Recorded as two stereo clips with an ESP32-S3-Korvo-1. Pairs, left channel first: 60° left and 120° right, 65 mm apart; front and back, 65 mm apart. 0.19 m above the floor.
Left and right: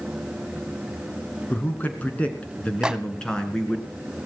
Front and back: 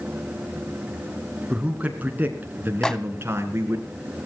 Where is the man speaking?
115° left, 2.5 m; by 3.8 s 140° left, 3 m.